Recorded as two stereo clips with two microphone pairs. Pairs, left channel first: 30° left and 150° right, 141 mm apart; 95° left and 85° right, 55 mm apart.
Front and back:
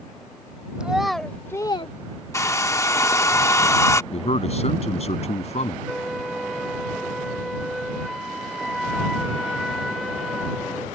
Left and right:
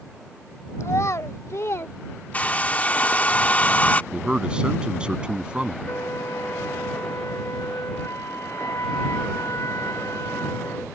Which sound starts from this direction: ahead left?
A hair dryer, at 2.3 s.